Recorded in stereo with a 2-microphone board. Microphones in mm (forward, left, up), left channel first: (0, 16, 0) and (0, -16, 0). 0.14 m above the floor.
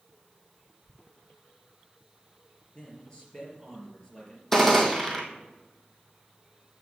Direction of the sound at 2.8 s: 20° left (ahead or behind).